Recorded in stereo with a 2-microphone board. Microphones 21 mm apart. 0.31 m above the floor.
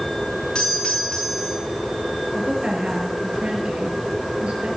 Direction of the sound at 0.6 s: 45° left (ahead or behind).